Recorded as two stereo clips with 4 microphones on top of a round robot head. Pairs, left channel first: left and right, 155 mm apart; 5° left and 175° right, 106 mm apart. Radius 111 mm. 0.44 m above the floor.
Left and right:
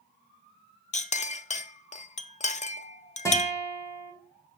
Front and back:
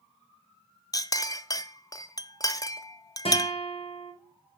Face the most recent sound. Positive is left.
turn(degrees=20)